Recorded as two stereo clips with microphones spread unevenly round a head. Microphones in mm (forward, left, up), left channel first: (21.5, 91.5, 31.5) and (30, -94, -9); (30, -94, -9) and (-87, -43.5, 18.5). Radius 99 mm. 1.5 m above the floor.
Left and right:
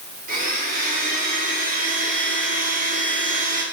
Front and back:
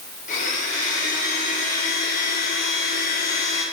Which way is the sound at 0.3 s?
40° right.